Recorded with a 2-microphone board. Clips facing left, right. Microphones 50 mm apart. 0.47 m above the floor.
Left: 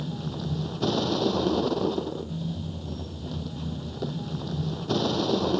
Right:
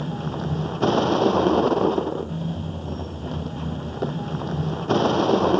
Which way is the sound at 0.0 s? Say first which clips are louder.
Right 5 dB; 40° right (ahead or behind).